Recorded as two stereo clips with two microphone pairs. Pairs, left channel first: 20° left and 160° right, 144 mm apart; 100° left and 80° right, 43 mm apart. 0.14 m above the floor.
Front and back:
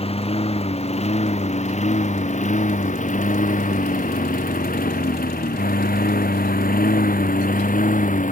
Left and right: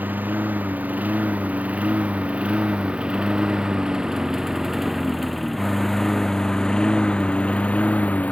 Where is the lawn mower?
25° right; by 8.3 s 45° left.